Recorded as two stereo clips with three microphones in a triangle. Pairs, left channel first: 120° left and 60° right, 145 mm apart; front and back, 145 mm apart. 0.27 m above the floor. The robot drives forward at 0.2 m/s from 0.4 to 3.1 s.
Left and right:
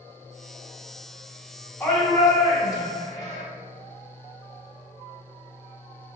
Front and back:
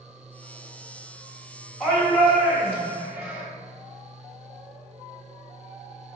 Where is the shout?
95° left, 1.2 m; by 3.4 s 125° left, 1.2 m.